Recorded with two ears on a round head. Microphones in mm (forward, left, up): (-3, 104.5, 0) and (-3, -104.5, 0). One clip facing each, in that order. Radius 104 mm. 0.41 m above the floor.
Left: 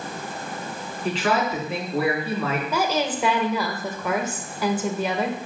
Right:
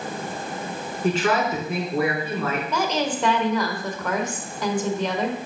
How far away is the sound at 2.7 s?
About 1.3 m.